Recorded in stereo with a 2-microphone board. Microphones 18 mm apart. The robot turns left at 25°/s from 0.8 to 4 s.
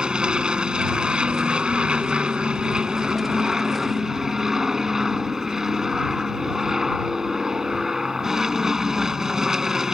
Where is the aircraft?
70° right; by 9.9 s 150° right.